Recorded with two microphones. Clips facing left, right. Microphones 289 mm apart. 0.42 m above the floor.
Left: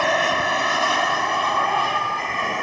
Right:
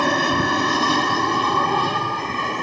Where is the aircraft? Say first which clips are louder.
Right 3 dB; 50° right (ahead or behind); by 2.6 s 45° right (ahead or behind).